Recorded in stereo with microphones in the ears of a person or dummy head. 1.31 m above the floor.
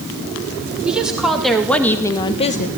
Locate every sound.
0.8 s a woman speaking: 5° right (ahead or behind), 3.5 m; by 2.7 s 45° left (ahead or behind), 1.3 m